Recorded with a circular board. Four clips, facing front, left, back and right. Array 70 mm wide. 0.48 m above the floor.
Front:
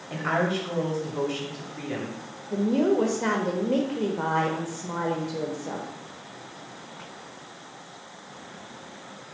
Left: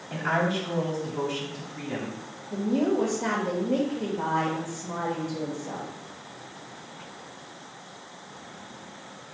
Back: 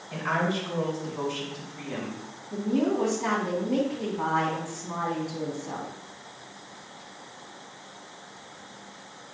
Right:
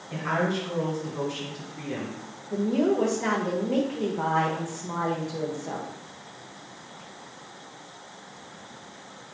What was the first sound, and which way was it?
A woman speaking, 15° left.